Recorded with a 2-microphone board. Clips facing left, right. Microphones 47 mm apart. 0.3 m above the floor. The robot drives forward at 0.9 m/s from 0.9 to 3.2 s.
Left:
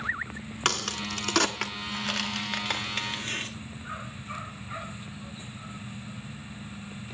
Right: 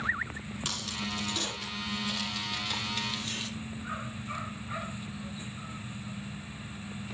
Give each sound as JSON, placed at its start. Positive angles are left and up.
{"t": 0.7, "sound": "a crack", "side_deg": 65, "distance_m": 1.5}